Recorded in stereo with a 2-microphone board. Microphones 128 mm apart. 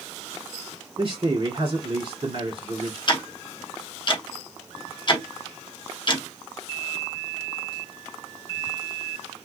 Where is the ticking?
35° left (ahead or behind), 0.7 m.